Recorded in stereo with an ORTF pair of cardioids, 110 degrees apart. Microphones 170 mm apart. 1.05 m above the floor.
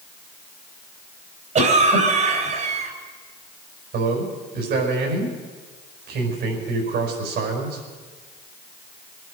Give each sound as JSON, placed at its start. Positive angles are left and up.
{"t": 1.6, "sound": "a cough", "azimuth_deg": -50, "distance_m": 3.5}
{"t": 3.9, "sound": "a man speaking", "azimuth_deg": -70, "distance_m": 5.0}